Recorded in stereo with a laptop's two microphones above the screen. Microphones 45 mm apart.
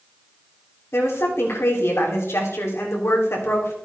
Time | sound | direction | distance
0.9 | a woman speaking | 80° left | 3 m